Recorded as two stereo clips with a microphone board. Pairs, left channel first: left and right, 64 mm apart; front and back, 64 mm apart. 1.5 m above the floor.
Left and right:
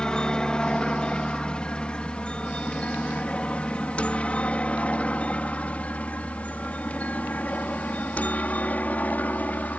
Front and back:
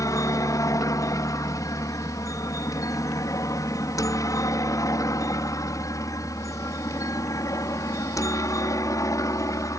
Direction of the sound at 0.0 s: 15° left.